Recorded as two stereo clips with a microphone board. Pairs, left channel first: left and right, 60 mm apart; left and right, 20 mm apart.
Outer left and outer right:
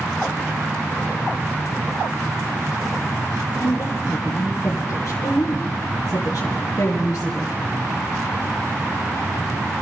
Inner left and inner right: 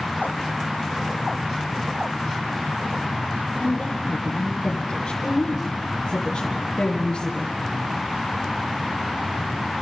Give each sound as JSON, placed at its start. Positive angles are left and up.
{"t": 3.6, "sound": "a woman speaking", "side_deg": 55, "distance_m": 4.0}